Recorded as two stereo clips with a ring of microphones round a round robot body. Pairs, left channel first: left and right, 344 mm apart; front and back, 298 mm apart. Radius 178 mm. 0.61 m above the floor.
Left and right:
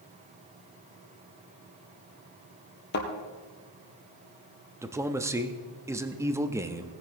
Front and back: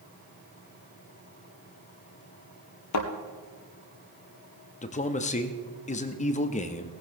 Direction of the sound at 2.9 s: 30° left.